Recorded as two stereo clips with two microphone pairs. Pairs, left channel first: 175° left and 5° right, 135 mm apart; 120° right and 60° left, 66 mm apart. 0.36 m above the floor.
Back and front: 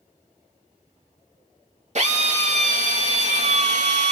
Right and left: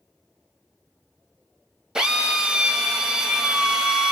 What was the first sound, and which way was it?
A drill, 15° right.